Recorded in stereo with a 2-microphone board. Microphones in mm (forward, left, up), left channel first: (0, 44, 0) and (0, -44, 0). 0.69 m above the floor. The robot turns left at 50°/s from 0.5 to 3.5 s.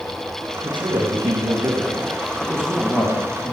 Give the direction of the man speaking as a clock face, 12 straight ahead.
3 o'clock.